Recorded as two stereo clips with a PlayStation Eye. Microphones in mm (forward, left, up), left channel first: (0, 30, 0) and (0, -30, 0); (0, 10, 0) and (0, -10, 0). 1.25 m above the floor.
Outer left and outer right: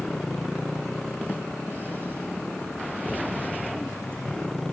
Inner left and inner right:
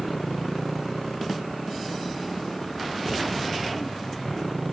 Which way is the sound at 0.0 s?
10° left (ahead or behind).